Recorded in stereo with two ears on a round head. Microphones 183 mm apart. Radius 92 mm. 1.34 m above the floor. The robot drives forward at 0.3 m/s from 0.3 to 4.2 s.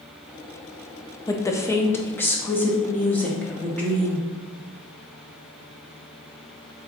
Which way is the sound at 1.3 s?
15° left (ahead or behind).